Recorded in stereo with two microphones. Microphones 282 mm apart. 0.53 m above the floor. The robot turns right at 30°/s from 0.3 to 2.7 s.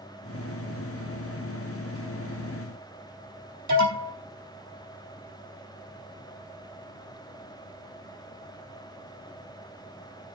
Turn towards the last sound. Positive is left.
turn(degrees=-75)  # may be behind; listen again after turning